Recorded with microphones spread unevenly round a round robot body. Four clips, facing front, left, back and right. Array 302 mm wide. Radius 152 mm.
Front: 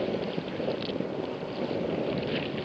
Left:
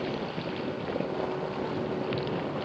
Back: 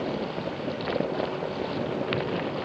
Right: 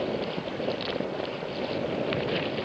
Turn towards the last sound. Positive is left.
No sound to turn to.